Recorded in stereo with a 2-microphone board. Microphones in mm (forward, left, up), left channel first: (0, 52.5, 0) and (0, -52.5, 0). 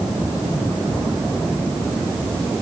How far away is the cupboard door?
I don't hear a cupboard door.